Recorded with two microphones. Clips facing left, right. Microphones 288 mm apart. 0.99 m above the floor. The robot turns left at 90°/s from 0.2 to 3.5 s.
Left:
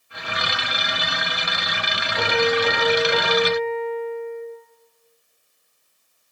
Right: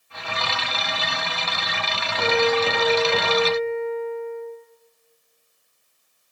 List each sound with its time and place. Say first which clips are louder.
2.2 s a piano: right 1 dB; 100° left, 3.5 m; by 4.4 s 20° right, 3.5 m